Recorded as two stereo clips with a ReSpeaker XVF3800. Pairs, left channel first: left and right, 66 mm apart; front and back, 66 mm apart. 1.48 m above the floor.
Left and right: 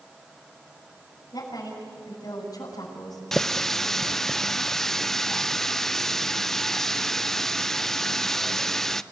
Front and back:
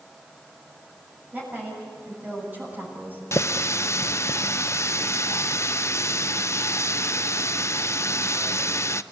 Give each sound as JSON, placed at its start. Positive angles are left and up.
{"t": 1.3, "sound": "a woman speaking", "azimuth_deg": 115, "distance_m": 6.5}
{"t": 3.3, "sound": "a running tap", "azimuth_deg": 10, "distance_m": 0.5}